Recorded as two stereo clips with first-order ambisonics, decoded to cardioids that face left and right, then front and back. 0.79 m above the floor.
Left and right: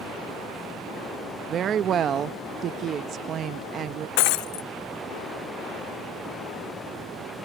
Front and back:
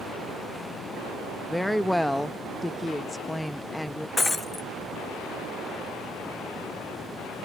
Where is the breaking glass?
80° left.